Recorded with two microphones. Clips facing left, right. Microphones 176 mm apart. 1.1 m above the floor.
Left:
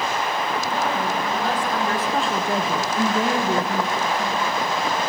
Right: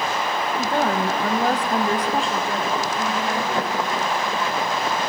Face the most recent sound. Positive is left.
turn(degrees=70)  # may be behind; listen again after turning